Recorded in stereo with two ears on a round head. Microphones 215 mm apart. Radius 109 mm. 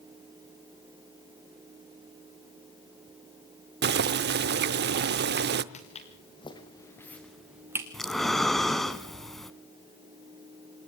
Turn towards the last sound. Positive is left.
turn(degrees=0)  # may be behind; listen again after turning